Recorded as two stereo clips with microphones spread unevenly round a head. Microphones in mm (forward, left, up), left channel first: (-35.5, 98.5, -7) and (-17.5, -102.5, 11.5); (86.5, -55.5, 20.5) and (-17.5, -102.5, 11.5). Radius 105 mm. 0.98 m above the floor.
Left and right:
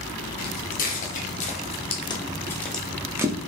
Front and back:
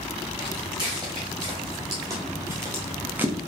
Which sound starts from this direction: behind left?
Footsteps, at 0.4 s.